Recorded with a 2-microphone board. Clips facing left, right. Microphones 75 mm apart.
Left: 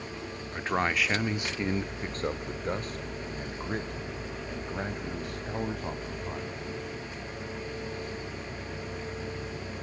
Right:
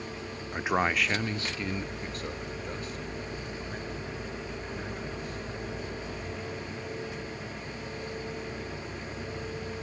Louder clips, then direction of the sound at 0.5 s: Right 1 dB; 15° right (ahead or behind).